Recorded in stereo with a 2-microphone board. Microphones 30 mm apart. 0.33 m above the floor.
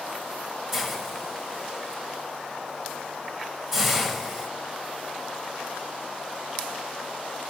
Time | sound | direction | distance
0.7 | a hiss | 10° right (ahead or behind) | 1.9 m